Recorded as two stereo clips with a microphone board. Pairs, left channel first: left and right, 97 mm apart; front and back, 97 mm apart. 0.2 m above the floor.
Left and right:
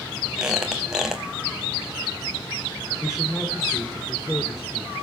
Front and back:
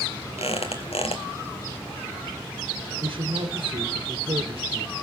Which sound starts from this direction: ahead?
A squeak, at 0.4 s.